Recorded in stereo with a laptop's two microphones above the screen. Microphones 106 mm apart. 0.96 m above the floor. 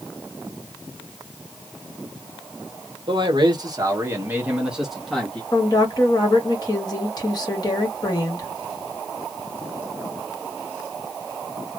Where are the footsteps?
No footsteps in this recording.